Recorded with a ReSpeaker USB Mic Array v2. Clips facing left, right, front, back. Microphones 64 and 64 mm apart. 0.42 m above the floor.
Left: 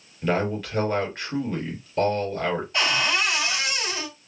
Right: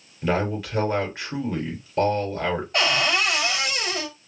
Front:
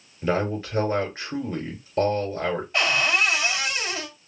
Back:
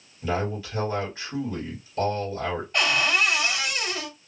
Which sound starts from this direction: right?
A cupboard door, at 2.7 s.